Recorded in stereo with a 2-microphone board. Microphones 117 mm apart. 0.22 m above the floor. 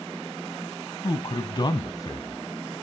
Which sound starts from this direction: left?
A man speaking, at 1.0 s.